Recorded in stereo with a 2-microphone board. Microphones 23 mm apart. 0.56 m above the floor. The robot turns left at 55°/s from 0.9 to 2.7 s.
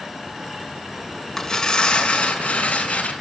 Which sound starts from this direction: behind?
Tearing paper, at 1.4 s.